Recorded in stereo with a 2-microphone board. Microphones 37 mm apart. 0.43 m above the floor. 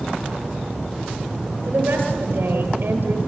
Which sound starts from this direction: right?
A woman speaking, at 1.7 s.